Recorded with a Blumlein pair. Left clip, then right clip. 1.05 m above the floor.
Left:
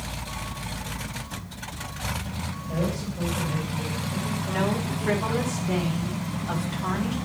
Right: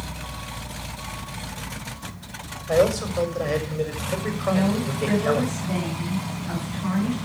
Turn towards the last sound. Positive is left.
turn(degrees=15)